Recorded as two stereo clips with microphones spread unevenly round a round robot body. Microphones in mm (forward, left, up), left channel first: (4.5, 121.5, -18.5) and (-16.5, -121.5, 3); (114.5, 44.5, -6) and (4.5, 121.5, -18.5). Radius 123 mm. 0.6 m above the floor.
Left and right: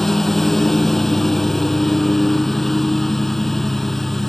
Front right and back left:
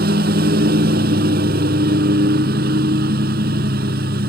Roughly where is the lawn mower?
Behind.